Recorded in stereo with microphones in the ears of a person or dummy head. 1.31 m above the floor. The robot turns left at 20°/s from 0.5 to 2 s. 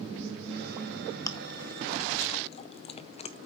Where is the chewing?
20° left (ahead or behind), 0.7 m; by 3.5 s 30° left (ahead or behind), 0.7 m.